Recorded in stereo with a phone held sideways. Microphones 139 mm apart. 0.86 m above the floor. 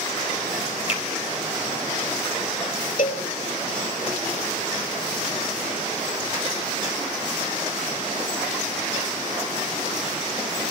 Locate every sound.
0.9 s a finger snap: 50° left (ahead or behind), 2.5 m
3.0 s a cowbell: 75° left (ahead or behind), 1.6 m